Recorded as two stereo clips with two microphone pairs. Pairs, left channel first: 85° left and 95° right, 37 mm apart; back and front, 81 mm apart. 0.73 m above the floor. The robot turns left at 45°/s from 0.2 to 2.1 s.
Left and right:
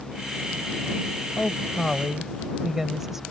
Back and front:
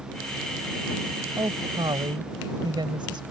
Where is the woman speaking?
25° left; by 3.2 s 10° right.